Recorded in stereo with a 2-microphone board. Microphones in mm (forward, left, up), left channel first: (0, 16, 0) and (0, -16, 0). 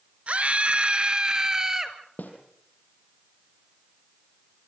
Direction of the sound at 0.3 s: 50° right (ahead or behind).